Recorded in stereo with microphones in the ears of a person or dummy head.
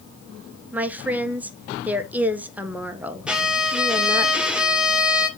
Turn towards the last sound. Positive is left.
turn(degrees=-5)  # may be behind; listen again after turning